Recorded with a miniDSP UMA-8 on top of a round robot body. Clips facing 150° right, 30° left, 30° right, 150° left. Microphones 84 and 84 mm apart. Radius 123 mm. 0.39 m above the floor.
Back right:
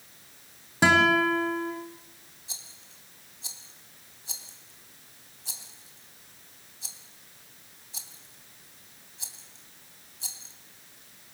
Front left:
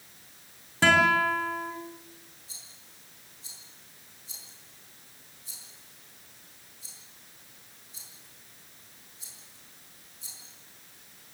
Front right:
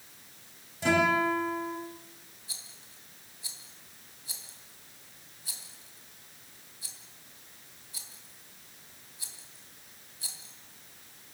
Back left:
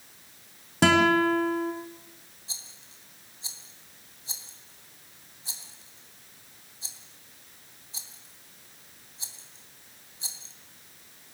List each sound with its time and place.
0.8 s a guitar: 135° left, 3.5 m
2.5 s a rattle: 145° right, 3 m